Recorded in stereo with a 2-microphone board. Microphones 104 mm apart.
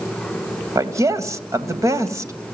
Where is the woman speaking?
30° right (ahead or behind), 2 m.